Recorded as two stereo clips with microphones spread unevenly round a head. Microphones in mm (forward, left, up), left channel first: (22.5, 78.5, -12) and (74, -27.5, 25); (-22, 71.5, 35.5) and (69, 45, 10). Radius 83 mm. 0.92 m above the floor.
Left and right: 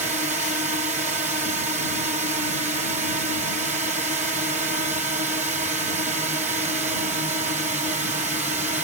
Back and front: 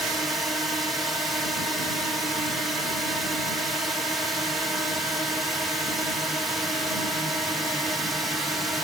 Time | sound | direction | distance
0.0 | a drone | 85° right | ?